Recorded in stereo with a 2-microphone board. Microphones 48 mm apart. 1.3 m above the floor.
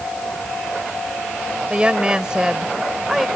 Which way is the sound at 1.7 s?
25° right (ahead or behind).